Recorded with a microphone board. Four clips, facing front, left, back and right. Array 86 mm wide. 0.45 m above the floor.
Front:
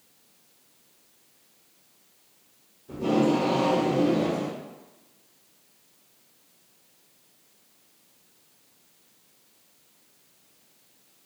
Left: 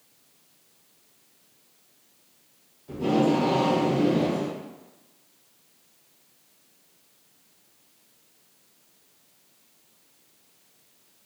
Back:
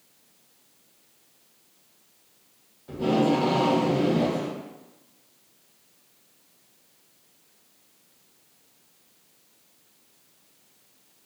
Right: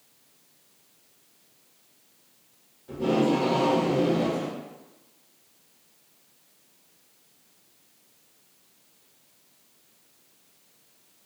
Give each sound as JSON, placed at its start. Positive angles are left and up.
{"t": 2.9, "sound": "tape being pulled", "azimuth_deg": -175, "distance_m": 0.9}